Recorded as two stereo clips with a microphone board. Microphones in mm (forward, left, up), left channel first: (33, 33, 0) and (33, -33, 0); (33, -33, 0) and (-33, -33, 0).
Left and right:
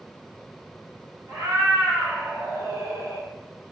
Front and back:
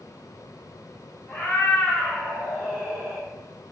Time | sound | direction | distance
1.3 | a cat meowing | 65° right | 1.6 m